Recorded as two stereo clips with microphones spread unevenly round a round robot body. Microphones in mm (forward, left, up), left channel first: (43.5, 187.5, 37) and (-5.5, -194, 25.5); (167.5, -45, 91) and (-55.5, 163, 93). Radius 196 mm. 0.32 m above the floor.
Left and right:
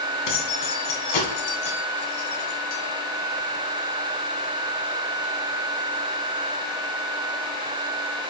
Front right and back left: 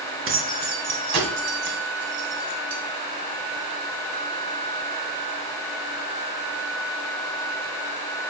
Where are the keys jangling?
90° left, 2 m; by 2.8 s 135° left, 2.5 m.